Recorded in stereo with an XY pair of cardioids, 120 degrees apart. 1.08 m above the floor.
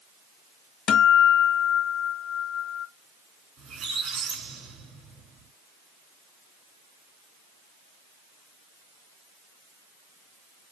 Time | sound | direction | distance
0.9 | a guitar | 65° left | 1.1 m
3.6 | a squeak | 60° right | 1.4 m